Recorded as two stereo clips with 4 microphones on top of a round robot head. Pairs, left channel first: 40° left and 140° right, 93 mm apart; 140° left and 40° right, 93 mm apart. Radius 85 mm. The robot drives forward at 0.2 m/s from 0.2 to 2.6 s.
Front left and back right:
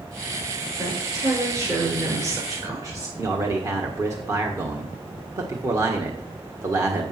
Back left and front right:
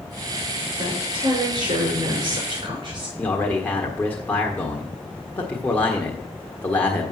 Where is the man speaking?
165° right, 1.5 m.